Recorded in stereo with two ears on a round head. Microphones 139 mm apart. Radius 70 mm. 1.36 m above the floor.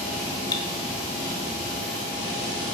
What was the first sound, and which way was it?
Cutlery clinking, 25° left (ahead or behind).